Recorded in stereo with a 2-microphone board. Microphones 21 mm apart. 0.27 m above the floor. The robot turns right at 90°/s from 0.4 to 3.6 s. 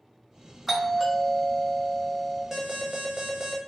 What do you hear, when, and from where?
0.7 s a doorbell: 10° right (ahead or behind), 1.4 m; by 2.4 s centre (ahead or behind), 1.4 m
2.5 s an alarm: 135° right, 0.7 m; by 3.6 s 35° right, 0.7 m